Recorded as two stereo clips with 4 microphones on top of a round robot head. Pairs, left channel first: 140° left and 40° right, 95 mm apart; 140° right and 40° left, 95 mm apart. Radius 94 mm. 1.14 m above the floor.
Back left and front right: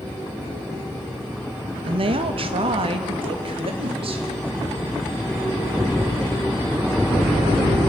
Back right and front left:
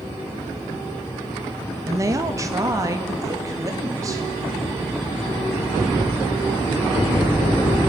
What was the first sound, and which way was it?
A woman speaking, 15° right.